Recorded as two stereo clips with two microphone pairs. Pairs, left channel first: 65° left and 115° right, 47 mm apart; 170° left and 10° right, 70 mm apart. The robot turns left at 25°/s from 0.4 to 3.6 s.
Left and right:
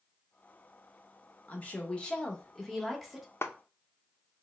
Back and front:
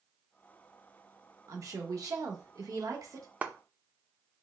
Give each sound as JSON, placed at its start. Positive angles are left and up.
{"t": 1.5, "sound": "a woman speaking", "azimuth_deg": 15, "distance_m": 1.0}
{"t": 3.4, "sound": "a clap", "azimuth_deg": 60, "distance_m": 0.5}